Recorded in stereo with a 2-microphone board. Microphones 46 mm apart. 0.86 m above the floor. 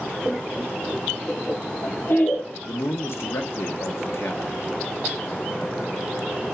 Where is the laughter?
35° left (ahead or behind), 2.5 m.